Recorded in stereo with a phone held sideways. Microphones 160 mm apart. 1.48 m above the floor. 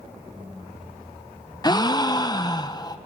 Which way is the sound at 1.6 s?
25° left (ahead or behind).